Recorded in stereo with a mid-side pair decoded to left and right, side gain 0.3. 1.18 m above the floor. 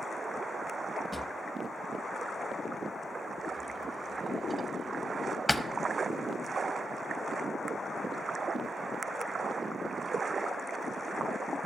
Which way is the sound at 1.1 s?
10° left.